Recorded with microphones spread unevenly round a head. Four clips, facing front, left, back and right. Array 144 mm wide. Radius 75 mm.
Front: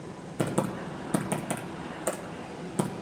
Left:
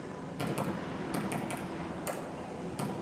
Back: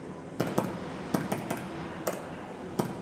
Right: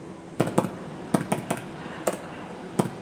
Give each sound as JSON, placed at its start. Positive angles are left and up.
{"t": 0.4, "sound": "typing on a keyboard", "azimuth_deg": -90, "distance_m": 1.0}